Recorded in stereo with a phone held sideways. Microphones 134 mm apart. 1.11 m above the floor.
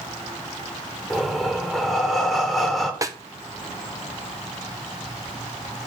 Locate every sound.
1.1 s breathing: centre (ahead or behind), 1.9 m
3.0 s a snare drum: 25° right (ahead or behind), 0.7 m